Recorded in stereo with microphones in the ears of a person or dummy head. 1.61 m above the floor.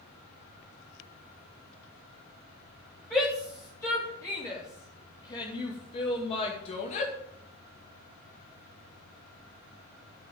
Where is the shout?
10° left (ahead or behind), 4 m; by 7.1 s 40° left (ahead or behind), 2.5 m.